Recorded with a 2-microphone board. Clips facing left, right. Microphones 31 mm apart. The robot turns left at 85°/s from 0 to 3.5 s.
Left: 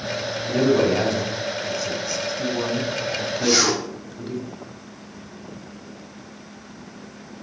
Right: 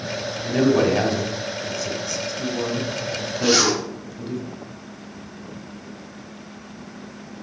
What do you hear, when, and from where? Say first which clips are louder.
0.4 s a man speaking: right 1 dB; 20° right (ahead or behind), 1.1 m; by 4.4 s 5° left (ahead or behind), 1.1 m
3.4 s a zipper: right 2 dB; 50° right (ahead or behind), 1.8 m; by 3.8 s 45° right (ahead or behind), 1.8 m